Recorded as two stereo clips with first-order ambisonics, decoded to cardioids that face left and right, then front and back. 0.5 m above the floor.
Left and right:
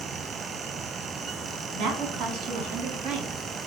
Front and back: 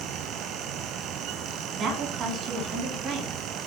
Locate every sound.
1.7 s a woman speaking: 125° right, 4 m; by 3.5 s 105° right, 5.5 m